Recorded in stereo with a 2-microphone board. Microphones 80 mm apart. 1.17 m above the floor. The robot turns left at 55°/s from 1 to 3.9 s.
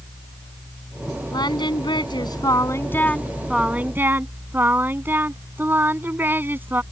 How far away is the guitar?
I don't hear a guitar.